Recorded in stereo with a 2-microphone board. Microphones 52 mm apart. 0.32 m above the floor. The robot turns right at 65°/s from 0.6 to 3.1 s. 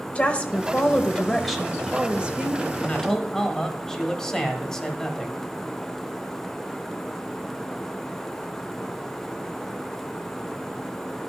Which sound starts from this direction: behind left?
A woman speaking, at 0.1 s.